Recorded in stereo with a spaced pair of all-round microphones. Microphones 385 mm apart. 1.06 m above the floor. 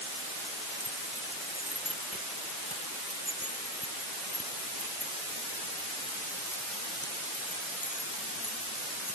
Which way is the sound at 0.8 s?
35° left (ahead or behind).